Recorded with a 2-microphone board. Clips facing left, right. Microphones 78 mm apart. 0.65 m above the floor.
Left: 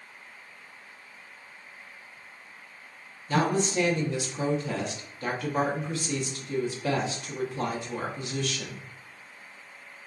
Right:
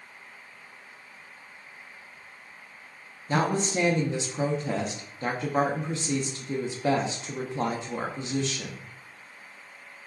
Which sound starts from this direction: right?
A woman speaking, at 3.3 s.